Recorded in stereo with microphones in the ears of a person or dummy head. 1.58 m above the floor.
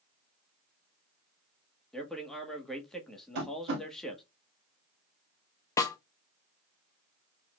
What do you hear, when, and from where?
1.9 s a man speaking: centre (ahead or behind), 1.5 m
3.4 s tapping: 50° right (ahead or behind), 1.9 m
5.8 s a snare drum: 25° left (ahead or behind), 0.7 m